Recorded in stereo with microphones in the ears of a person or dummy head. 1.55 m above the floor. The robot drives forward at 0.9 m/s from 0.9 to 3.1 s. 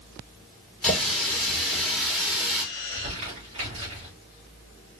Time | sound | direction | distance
0.8 | a running tap | 5° right (ahead or behind) | 3 m
2.8 | crumpling | 45° right (ahead or behind) | 2.5 m